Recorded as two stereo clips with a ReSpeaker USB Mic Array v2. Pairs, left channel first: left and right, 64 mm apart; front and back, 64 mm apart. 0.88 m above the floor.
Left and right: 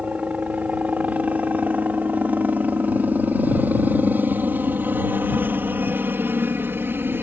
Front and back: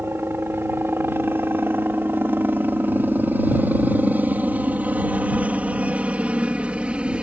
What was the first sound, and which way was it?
A helicopter, 150° right.